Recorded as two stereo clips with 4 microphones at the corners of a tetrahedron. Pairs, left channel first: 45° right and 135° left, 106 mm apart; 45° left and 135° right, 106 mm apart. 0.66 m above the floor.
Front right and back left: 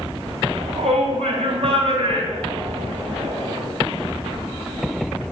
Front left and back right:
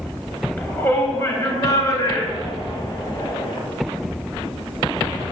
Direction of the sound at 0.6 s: 115° left.